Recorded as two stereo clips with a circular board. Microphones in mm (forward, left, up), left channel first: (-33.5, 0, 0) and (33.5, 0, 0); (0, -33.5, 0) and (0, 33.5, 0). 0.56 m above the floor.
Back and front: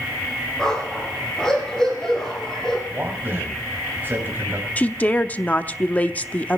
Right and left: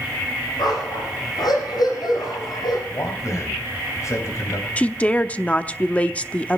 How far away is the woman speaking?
About 0.7 m.